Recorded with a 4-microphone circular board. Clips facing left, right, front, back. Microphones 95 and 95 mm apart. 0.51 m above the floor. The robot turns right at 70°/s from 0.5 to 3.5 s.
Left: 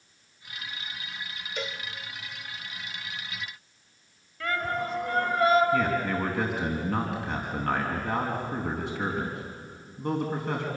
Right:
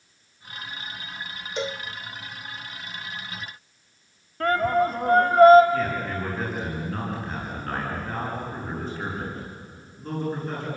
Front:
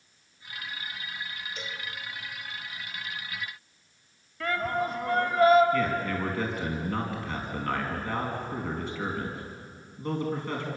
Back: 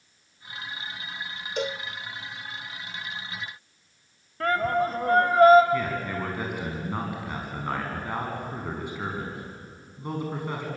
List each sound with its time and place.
1.6 s a cowbell: 155° right, 0.6 m; by 1.8 s 140° right, 0.6 m
4.4 s a shout: 135° right, 2 m
5.7 s a man speaking: 105° left, 5 m